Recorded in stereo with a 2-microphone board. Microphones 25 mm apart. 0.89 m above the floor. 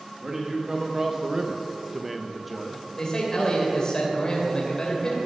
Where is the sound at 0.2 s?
20° right (ahead or behind), 1.7 m; by 2.8 s 5° left (ahead or behind), 1.3 m.